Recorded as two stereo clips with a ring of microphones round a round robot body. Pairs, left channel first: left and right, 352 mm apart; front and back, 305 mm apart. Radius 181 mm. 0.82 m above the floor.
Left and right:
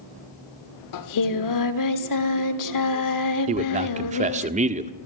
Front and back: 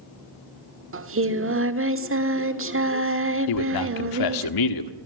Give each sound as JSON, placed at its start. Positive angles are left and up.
{"t": 0.9, "sound": "singing", "azimuth_deg": 130, "distance_m": 1.4}
{"t": 3.5, "sound": "a man speaking", "azimuth_deg": -20, "distance_m": 1.7}